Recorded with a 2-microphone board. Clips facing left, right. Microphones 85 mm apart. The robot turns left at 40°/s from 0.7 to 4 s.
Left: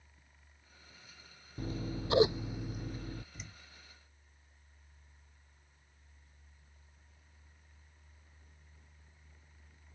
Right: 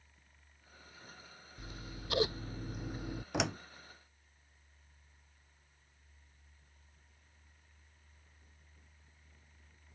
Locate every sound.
1.6 s scissors: 50° left; by 3.2 s 20° right
3.3 s a door slam: 80° right